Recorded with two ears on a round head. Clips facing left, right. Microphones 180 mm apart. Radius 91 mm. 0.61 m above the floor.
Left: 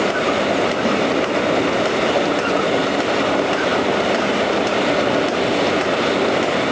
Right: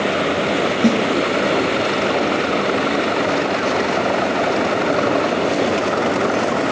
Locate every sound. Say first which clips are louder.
0.8 s a snare drum: right 8 dB; 60° right (ahead or behind), 2 m